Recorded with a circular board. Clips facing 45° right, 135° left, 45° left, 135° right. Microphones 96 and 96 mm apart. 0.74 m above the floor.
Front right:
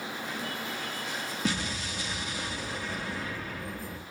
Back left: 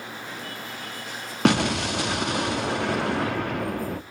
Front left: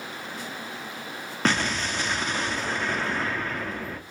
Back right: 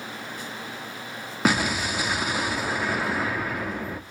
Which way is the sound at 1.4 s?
145° left.